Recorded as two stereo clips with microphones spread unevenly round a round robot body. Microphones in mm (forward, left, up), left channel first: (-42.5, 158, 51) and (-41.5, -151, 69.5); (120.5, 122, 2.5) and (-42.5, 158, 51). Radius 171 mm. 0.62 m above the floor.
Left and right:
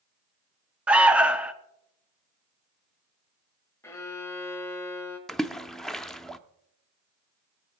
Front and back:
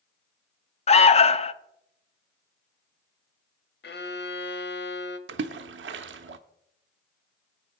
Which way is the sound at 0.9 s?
Straight ahead.